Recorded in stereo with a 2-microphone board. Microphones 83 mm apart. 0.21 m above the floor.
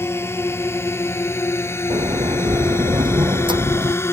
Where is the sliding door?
80° right.